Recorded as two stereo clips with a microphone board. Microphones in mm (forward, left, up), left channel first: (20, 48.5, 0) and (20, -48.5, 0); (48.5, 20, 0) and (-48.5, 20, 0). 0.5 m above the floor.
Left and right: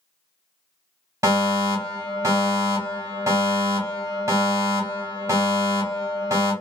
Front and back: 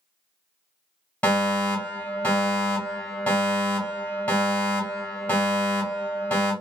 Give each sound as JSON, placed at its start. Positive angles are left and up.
{"t": 1.2, "sound": "a fire alarm", "azimuth_deg": -60, "distance_m": 2.0}